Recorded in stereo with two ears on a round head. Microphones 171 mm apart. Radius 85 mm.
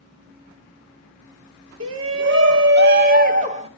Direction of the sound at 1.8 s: 80° right.